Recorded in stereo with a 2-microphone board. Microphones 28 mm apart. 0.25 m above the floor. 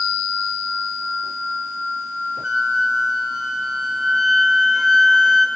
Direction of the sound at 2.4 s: 30° right (ahead or behind).